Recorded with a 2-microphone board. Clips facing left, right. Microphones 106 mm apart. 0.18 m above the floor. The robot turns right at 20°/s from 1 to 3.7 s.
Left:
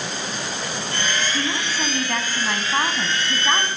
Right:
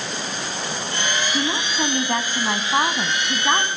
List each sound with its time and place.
1.3 s a woman speaking: 20° right (ahead or behind), 1.1 m; by 3.7 s 15° right (ahead or behind), 1.1 m